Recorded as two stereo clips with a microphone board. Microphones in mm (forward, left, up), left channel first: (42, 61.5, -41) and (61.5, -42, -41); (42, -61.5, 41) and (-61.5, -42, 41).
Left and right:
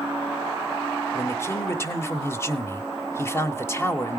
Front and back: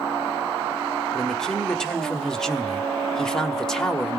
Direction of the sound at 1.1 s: 70° left.